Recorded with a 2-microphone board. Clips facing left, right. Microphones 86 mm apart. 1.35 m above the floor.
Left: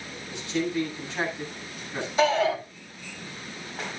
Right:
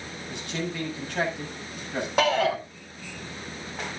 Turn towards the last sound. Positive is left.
turn(degrees=-60)  # may be behind; listen again after turning